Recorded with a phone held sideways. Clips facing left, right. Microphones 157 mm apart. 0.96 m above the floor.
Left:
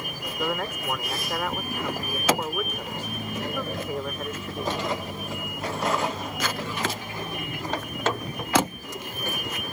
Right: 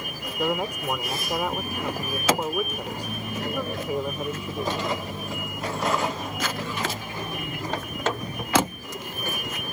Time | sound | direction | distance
0.4 | a man speaking | 15° right (ahead or behind) | ?